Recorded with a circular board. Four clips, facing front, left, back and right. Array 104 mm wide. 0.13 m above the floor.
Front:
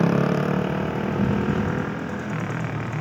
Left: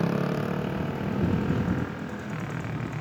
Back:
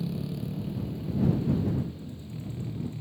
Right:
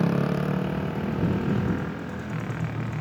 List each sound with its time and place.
0.0 s a motorcycle: straight ahead